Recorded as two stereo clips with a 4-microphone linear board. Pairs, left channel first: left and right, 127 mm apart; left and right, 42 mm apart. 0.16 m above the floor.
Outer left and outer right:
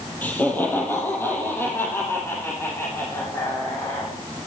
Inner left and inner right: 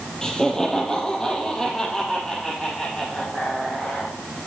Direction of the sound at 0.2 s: 15° left (ahead or behind).